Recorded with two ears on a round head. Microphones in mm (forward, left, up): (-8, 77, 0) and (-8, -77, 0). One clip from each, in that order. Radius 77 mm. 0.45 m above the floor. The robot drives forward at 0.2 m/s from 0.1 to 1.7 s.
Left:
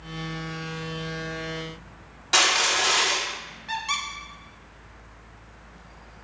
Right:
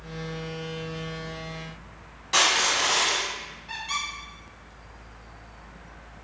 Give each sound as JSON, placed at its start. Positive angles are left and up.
{"t": 2.3, "sound": "crushing", "side_deg": 30, "distance_m": 0.7}
{"t": 3.7, "sound": "a squeak", "side_deg": 40, "distance_m": 0.5}